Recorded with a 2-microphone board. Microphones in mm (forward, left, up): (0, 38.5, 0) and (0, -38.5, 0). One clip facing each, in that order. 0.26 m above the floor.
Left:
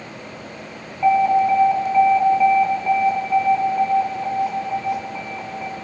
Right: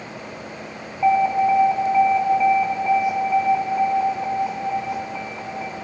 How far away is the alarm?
About 4.5 m.